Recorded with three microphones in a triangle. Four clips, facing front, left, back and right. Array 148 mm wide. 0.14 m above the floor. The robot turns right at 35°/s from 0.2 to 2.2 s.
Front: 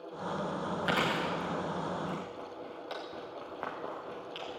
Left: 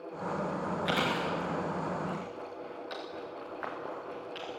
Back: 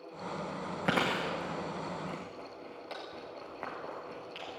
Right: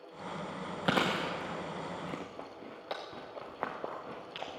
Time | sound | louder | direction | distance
0.8 | chewing | right 2 dB, back 1 dB | 130° right | 5 m